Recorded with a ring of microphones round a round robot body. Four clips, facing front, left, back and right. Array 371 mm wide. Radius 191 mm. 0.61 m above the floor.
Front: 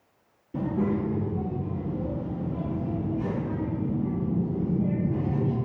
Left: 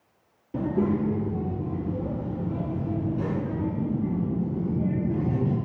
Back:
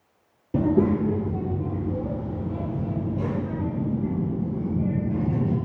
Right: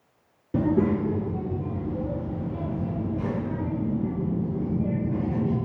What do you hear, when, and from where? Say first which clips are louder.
0.5 s a child speaking: right 2 dB, back 6 dB; 150° right, 0.9 m; by 5.5 s 145° left, 4 m